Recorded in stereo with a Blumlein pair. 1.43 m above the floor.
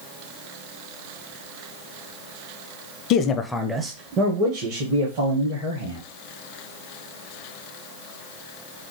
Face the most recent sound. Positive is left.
turn(degrees=-60)